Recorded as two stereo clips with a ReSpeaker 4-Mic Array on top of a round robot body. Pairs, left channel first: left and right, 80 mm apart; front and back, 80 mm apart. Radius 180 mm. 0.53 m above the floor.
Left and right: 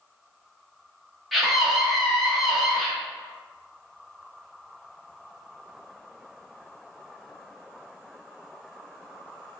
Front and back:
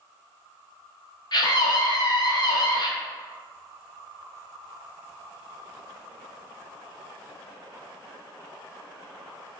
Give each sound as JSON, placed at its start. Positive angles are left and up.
{"t": 1.3, "sound": "a scream", "azimuth_deg": 0, "distance_m": 1.1}